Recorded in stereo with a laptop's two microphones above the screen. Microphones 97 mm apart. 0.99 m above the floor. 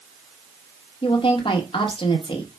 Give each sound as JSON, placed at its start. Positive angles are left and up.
{"t": 1.0, "sound": "a woman speaking", "side_deg": 55, "distance_m": 1.0}